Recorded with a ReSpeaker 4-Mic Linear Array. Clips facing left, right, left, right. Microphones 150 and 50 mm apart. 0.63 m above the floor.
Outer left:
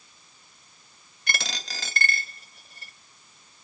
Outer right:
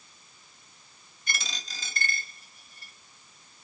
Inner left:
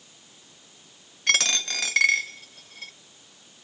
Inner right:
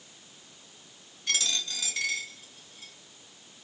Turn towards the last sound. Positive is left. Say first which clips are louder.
# outer left 5 dB, inner left 8 dB
turn(degrees=75)  # may be behind; listen again after turning